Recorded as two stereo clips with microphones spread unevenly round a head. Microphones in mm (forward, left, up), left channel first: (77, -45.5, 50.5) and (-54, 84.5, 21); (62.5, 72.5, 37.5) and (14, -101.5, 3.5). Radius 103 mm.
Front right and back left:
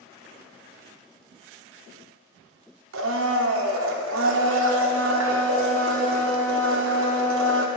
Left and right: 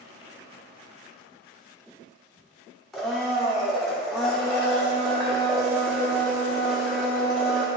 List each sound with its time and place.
2.9 s a blender: 160° left, 0.6 m